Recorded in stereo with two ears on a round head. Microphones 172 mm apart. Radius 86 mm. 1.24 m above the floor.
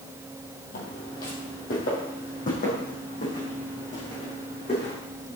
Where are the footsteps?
50° left (ahead or behind), 2.5 m; by 4.9 s 40° left (ahead or behind), 5 m.